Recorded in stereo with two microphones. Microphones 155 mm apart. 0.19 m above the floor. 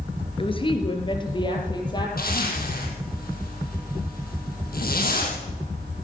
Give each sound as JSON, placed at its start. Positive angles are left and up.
{"t": 0.4, "sound": "a woman speaking", "side_deg": 35, "distance_m": 2.5}
{"t": 2.2, "sound": "a zipper", "side_deg": 75, "distance_m": 4.0}